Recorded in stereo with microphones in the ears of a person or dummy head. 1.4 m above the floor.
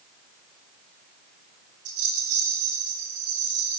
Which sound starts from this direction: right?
A rattle, at 1.9 s.